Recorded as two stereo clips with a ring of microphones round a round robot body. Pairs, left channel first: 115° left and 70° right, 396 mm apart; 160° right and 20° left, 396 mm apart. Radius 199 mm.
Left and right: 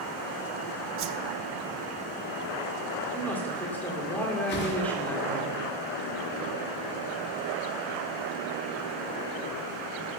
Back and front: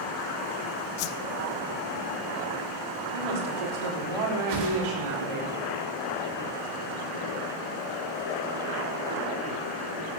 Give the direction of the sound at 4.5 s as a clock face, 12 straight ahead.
10 o'clock.